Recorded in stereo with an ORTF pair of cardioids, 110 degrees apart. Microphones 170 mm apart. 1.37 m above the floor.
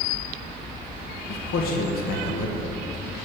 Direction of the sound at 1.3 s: 65° left.